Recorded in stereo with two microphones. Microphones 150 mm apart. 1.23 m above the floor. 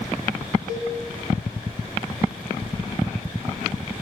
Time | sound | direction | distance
0.7 | a cowbell | 70° right (ahead or behind) | 3 m